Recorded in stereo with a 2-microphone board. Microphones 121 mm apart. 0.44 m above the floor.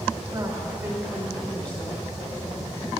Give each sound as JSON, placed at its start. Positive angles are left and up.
{"t": 0.3, "sound": "a woman speaking", "side_deg": -35, "distance_m": 1.8}